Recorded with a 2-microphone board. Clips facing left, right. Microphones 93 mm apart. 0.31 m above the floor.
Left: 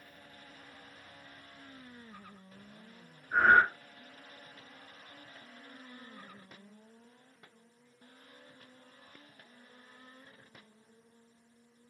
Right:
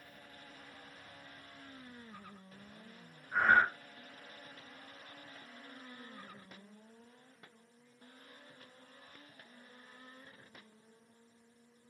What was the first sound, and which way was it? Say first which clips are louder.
Breathing: left 4 dB; 60° left (ahead or behind).